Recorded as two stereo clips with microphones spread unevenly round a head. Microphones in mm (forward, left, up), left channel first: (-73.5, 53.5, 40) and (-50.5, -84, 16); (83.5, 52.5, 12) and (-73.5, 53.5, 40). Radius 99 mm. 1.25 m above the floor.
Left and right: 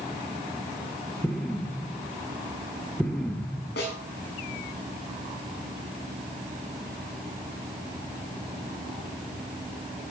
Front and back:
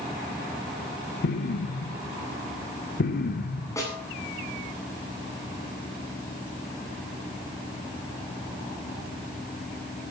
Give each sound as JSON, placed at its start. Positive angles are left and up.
{"t": 1.2, "sound": "an explosion", "azimuth_deg": 20, "distance_m": 1.4}
{"t": 3.8, "sound": "a snare drum", "azimuth_deg": 70, "distance_m": 8.0}